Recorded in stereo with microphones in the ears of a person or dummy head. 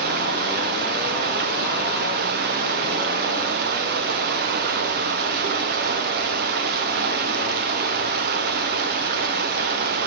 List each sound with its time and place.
0.0 s running water: 50° right (ahead or behind), 0.9 m